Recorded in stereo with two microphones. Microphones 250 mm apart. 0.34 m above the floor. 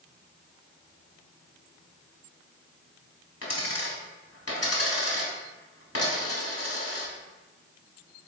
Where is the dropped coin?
75° left (ahead or behind), 1.1 m.